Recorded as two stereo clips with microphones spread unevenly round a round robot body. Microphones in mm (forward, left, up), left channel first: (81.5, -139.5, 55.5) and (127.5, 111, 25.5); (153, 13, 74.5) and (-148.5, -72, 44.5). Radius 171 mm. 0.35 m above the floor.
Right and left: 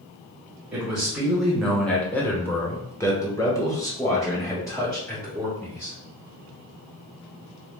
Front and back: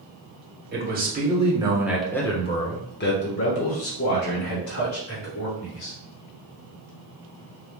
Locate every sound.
0.7 s a man speaking: 160° left, 1.4 m; by 6.0 s 20° right, 3 m